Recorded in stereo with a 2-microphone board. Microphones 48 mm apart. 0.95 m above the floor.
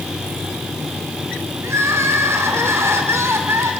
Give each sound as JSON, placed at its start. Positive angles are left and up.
{"t": 1.6, "sound": "crying", "side_deg": -70, "distance_m": 3.5}